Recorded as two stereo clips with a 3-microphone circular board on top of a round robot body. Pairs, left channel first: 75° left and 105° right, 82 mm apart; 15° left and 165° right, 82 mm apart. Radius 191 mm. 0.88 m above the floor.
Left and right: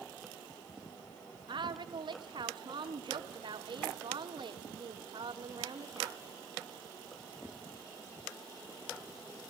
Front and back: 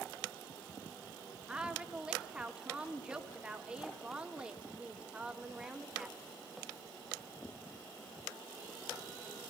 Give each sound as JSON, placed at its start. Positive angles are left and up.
{"t": 1.5, "sound": "a woman speaking", "azimuth_deg": -85, "distance_m": 3.5}